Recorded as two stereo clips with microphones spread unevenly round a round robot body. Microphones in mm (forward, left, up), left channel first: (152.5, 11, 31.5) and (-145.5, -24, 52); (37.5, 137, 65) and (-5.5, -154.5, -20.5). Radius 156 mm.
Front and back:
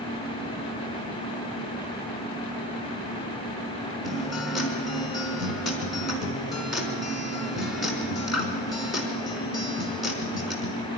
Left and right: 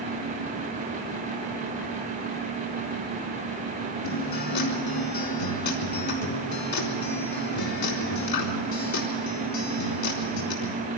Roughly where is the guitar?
Left.